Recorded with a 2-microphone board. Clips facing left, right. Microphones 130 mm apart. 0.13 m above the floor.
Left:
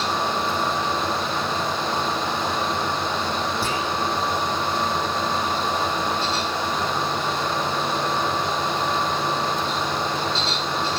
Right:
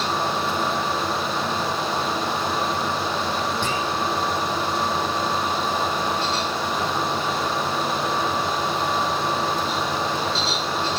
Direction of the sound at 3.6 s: 5° left (ahead or behind).